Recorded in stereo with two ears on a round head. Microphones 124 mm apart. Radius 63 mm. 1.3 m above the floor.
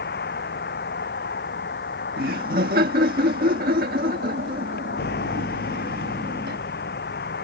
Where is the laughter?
70° right (ahead or behind).